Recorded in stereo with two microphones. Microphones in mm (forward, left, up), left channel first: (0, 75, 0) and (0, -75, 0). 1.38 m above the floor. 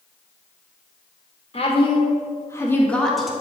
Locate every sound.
1.5 s a woman speaking: 40° left (ahead or behind), 1.9 m; by 3.3 s centre (ahead or behind), 1.6 m